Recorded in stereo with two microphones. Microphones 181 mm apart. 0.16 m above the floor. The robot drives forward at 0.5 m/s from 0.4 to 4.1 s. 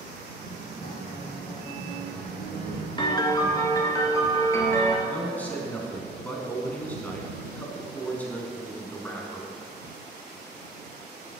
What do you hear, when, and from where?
0.8 s a guitar: 55° left (ahead or behind), 1.2 m; by 2.9 s 30° left (ahead or behind), 2.0 m
3.0 s a piano: 25° left (ahead or behind), 0.7 m; by 5.0 s 15° left (ahead or behind), 1.1 m
5.0 s a man speaking: 10° left (ahead or behind), 1.1 m